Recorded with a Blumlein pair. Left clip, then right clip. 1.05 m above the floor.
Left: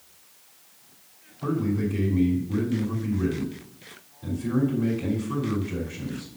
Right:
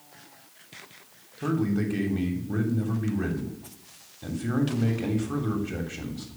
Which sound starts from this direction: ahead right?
A man speaking, at 1.4 s.